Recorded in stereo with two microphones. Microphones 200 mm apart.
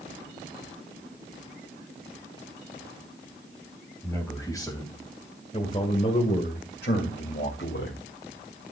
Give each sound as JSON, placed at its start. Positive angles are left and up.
{"t": 4.0, "sound": "a man speaking", "side_deg": 10, "distance_m": 4.0}